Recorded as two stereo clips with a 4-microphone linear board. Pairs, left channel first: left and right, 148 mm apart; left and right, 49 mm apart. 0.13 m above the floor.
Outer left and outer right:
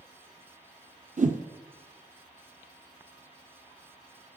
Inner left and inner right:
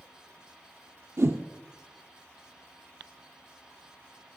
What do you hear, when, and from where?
1.2 s a whoosh: 60° right (ahead or behind), 0.8 m